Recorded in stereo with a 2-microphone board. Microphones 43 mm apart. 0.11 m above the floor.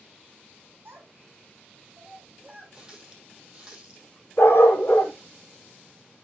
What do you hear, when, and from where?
0.8 s a child speaking: 55° right (ahead or behind), 2.5 m; by 2.6 s 35° right (ahead or behind), 3.5 m
2.7 s a running tap: 20° right (ahead or behind), 3 m
4.4 s a dog barking: 70° left (ahead or behind), 1.4 m